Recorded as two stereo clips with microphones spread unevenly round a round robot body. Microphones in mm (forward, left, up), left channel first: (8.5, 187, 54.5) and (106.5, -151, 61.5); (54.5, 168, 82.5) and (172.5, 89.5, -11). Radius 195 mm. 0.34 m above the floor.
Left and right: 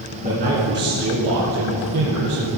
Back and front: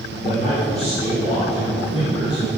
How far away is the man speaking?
About 4.5 m.